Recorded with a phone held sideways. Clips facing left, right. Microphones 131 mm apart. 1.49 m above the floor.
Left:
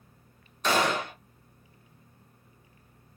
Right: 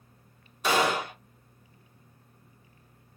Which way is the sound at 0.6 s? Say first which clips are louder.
Right 1 dB; 10° right (ahead or behind).